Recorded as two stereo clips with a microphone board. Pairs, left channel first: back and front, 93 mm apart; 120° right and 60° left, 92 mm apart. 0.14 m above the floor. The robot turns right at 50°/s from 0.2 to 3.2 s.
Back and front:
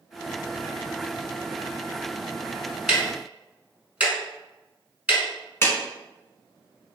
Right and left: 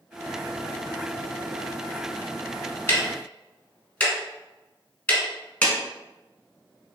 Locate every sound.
2.9 s ticking: 75° right, 1.0 m; by 5.2 s 60° right, 1.0 m
5.6 s a clap: 175° right, 0.9 m